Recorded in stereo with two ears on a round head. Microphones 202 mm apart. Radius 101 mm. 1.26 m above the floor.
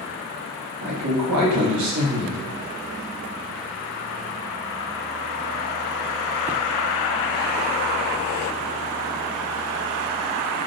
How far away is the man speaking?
About 0.9 m.